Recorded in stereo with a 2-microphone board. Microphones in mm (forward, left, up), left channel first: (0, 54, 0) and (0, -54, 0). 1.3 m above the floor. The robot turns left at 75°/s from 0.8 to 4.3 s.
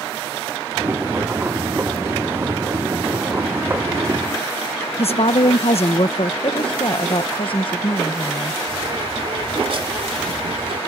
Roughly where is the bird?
Right.